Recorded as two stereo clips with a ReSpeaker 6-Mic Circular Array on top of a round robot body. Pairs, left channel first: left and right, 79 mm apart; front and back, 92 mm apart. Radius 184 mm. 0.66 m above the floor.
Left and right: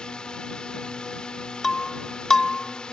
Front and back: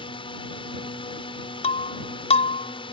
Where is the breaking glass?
5° left.